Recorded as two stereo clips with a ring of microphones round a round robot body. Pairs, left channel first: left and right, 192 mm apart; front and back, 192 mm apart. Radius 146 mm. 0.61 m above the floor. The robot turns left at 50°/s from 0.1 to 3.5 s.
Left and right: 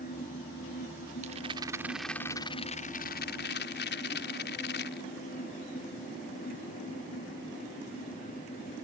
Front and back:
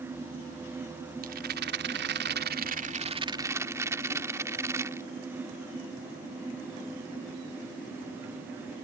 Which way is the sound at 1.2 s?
140° right.